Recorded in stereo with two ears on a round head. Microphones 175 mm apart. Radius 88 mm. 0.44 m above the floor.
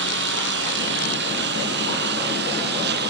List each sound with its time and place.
0.0 s a lawn mower: 65° right (ahead or behind); by 3.1 s 60° right (ahead or behind)